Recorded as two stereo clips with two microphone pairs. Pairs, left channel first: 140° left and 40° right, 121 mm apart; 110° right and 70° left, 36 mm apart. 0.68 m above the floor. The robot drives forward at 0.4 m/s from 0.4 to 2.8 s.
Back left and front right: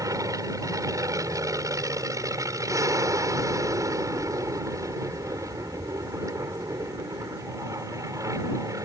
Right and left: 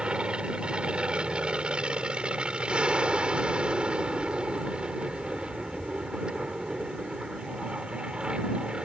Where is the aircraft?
15° left.